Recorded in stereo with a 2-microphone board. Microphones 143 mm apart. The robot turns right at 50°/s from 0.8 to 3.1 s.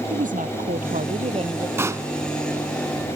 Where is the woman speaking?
75° right; by 1.7 s 30° right.